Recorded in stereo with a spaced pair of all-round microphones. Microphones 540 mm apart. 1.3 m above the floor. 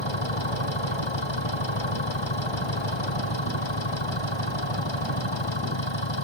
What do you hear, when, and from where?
0.0 s an engine running: 50° left (ahead or behind)